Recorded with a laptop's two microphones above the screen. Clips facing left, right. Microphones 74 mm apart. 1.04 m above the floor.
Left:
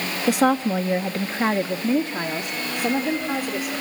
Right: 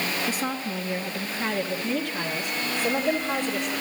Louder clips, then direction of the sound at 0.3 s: Left 10 dB; 80° left.